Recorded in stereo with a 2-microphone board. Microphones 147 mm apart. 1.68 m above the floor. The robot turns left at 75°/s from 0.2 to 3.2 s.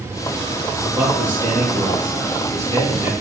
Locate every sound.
0.8 s a man speaking: straight ahead, 3 m; by 3.1 s 170° right, 3 m